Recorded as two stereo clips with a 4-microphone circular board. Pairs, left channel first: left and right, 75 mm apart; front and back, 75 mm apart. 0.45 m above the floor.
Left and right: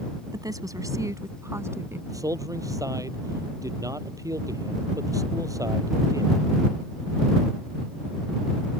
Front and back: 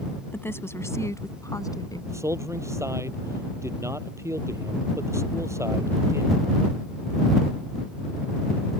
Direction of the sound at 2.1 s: 130° right.